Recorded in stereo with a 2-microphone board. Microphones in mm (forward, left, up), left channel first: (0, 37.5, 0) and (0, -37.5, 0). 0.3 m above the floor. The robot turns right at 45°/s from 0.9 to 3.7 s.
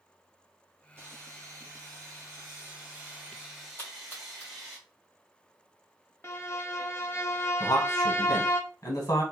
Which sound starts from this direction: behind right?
Sawing, at 1.0 s.